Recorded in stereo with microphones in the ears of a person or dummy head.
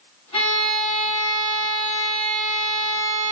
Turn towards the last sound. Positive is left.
turn(degrees=35)  # may be behind; listen again after turning